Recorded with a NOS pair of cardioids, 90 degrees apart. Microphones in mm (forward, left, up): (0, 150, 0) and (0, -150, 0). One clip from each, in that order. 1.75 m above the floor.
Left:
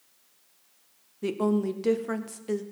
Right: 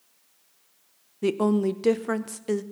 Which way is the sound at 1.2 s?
25° right.